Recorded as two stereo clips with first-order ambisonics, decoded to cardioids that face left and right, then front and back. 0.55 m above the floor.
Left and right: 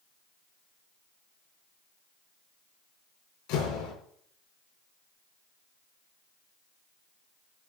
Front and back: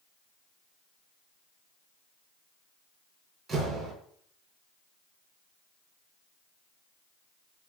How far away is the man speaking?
I don't hear a man speaking.